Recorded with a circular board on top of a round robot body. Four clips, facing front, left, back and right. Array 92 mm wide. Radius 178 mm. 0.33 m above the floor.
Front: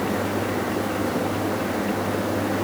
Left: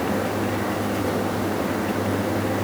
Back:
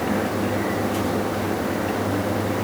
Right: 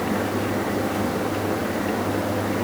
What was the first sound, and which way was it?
Only background noise.